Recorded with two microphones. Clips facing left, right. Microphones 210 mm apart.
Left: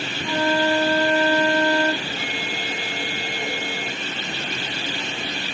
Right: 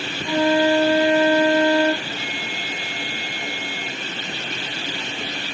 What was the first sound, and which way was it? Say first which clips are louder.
A flute: right 4 dB; 10° right (ahead or behind).